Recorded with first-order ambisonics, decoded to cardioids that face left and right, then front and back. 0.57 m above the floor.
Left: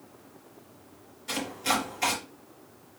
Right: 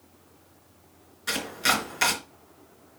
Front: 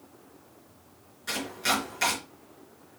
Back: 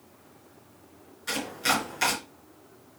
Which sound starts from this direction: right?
Chopping, at 1.3 s.